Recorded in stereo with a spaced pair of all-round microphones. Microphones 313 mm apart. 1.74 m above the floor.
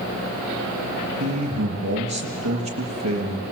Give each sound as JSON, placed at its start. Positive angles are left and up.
{"t": 1.2, "sound": "a man speaking", "side_deg": -55, "distance_m": 3.5}